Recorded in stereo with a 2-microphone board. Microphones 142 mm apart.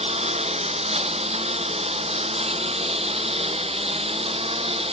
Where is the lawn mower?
45° right (ahead or behind).